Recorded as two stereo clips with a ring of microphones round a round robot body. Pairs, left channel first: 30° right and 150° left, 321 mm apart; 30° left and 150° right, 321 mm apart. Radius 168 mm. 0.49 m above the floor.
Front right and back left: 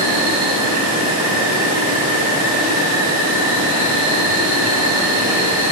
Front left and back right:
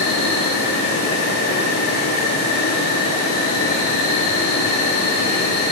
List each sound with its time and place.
0.0 s an insect: 85° left, 4.5 m